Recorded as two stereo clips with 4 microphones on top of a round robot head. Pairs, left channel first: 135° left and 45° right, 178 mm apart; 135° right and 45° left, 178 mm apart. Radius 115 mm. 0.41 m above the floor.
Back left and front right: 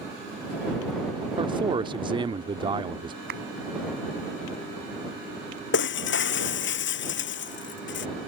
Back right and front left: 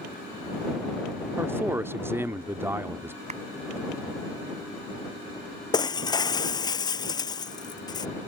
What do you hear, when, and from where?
1.4 s a man speaking: 20° right
3.3 s a clap: 10° right
5.7 s breaking glass: 155° left